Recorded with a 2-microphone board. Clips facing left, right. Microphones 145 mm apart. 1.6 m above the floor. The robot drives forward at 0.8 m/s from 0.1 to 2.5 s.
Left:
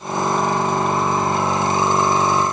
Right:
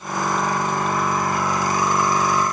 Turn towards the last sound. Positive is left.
No sound to turn to.